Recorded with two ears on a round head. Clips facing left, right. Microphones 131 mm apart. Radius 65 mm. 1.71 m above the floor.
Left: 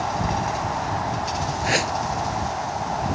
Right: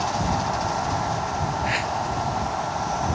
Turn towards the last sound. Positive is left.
turn(degrees=50)  # may be behind; listen again after turning